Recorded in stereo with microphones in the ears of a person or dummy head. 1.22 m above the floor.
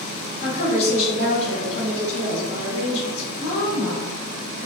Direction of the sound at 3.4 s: 55° left (ahead or behind).